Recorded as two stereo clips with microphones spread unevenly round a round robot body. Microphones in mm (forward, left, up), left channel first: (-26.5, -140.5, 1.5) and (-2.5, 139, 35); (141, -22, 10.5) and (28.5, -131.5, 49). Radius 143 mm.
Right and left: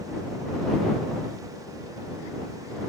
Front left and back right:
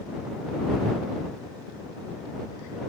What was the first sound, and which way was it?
Only background noise.